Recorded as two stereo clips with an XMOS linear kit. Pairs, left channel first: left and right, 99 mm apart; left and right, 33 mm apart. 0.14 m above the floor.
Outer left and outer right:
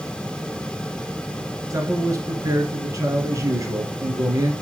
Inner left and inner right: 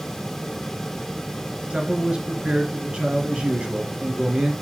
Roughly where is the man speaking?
Right.